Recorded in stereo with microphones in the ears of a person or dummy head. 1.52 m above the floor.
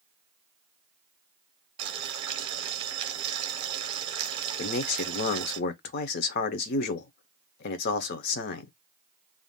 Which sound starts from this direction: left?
A man speaking, at 4.6 s.